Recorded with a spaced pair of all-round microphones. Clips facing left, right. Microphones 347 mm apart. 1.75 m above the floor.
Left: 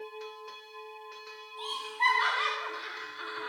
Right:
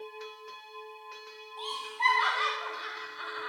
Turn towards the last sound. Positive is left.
turn(degrees=40)  # may be behind; listen again after turning